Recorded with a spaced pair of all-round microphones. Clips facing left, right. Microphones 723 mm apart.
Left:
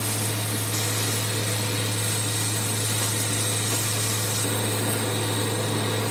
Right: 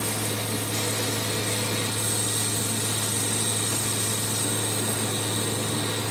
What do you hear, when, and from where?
0.0 s a fan: 5° left (ahead or behind), 2.5 m